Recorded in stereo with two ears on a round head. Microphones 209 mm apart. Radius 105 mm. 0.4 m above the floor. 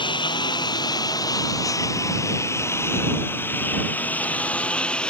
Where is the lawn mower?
20° left (ahead or behind); by 5.1 s 5° left (ahead or behind).